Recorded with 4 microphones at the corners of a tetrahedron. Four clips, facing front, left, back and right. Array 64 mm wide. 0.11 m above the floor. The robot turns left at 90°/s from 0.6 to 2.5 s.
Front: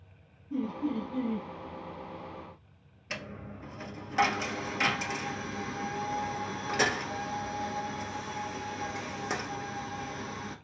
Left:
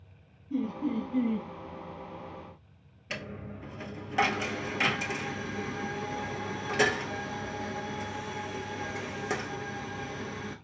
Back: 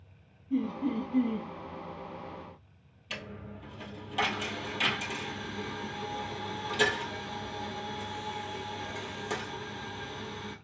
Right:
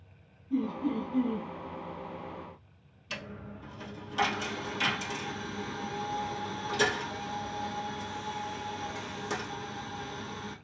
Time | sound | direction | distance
0.5 | laughter | 170° right | 1.3 m
3.1 | a dropped coin | 60° left | 0.8 m